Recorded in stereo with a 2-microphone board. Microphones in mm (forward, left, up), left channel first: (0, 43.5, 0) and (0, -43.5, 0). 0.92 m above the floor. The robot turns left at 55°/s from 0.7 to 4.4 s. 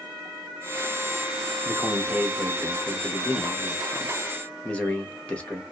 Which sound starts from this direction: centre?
A man speaking, at 1.6 s.